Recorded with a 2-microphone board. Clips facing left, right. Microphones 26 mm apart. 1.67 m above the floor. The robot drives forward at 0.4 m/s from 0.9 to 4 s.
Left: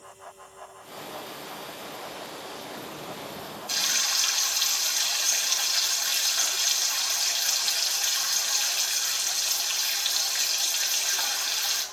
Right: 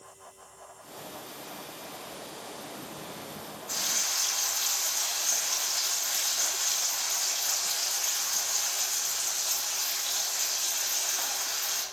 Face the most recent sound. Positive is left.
turn(degrees=70)  # may be behind; listen again after turning